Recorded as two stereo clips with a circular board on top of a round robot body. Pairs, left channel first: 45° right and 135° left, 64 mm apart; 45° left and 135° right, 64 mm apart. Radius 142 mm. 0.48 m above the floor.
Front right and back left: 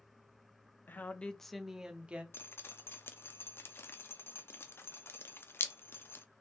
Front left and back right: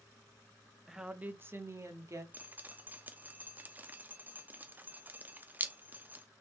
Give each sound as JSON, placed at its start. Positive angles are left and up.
{"t": 0.9, "sound": "a woman speaking", "azimuth_deg": -50, "distance_m": 0.8}
{"t": 2.3, "sound": "dripping", "azimuth_deg": -80, "distance_m": 0.6}